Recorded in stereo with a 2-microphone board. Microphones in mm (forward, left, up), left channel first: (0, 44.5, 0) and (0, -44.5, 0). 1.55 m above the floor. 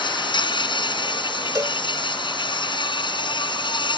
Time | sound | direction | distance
0.0 | an insect | 55° left (ahead or behind) | ?
1.6 | a cowbell | 35° right (ahead or behind) | ?